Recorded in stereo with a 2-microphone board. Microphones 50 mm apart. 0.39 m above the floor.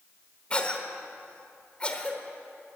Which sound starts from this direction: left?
A cough, at 0.5 s.